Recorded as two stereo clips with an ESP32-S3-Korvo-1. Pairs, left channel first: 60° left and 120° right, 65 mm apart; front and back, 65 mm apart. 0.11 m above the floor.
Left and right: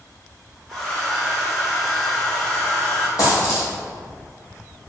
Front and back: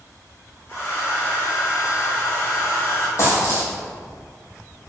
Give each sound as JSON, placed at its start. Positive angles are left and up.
{"t": 0.7, "sound": "a hair dryer", "azimuth_deg": -15, "distance_m": 1.6}
{"t": 3.2, "sound": "a dropped coin", "azimuth_deg": 40, "distance_m": 2.0}